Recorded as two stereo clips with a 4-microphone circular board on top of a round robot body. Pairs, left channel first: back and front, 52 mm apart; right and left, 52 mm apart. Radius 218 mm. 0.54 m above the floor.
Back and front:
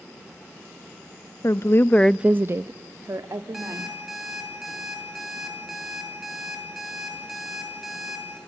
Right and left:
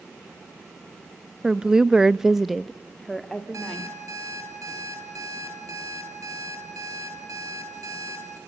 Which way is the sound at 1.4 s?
170° left.